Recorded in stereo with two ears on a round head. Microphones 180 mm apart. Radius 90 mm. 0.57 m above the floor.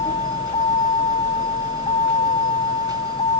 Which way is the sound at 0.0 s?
25° left (ahead or behind).